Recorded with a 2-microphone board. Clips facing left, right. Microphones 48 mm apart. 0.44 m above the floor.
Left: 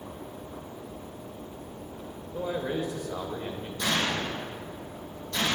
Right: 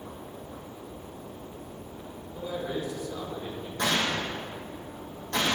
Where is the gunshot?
45° right (ahead or behind), 3 m.